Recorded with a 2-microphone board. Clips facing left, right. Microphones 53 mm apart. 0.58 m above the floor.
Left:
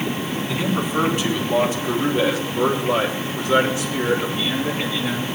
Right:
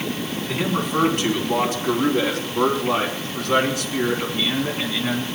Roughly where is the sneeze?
I don't hear a sneeze.